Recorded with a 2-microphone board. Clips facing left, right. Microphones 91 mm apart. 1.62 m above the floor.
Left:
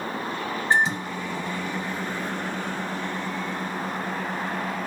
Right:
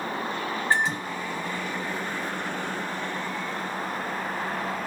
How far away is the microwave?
About 1.2 m.